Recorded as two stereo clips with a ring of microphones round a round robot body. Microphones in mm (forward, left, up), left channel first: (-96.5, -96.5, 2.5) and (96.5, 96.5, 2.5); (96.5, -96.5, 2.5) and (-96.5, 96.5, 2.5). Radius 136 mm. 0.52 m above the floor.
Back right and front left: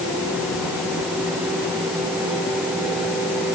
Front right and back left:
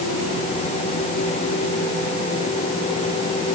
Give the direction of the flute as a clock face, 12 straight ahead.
No flute in this recording.